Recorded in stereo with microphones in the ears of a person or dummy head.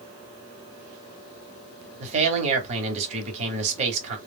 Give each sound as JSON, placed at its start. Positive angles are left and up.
{"t": 2.0, "sound": "a man speaking", "side_deg": -35, "distance_m": 1.0}